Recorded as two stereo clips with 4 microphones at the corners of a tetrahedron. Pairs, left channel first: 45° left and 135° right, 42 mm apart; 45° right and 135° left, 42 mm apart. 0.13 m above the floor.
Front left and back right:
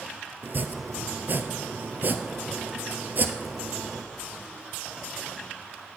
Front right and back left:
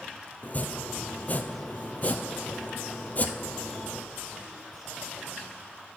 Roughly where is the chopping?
Right.